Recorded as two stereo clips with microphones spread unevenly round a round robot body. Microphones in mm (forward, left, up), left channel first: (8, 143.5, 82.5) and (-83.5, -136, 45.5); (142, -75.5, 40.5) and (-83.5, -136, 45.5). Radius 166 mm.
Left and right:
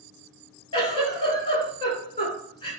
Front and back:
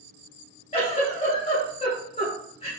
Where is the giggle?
Straight ahead, 1.5 m.